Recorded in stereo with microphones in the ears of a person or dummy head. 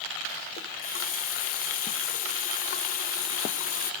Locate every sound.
0.6 s a running tap: 45° left (ahead or behind), 1.4 m